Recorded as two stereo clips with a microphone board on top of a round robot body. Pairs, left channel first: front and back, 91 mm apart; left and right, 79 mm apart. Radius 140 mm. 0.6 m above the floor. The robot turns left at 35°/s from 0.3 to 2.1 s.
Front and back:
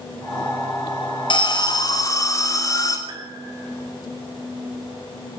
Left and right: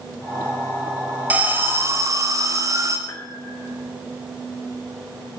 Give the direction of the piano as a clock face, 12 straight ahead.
7 o'clock.